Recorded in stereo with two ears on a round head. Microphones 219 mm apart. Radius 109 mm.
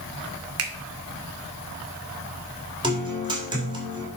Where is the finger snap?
65° right (ahead or behind), 1.4 m.